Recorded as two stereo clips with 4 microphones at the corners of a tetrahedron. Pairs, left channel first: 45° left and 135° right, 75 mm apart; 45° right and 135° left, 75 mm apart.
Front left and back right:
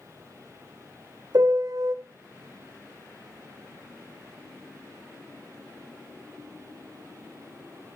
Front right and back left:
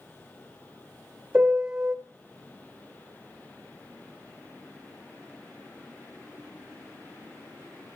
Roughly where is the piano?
Behind right.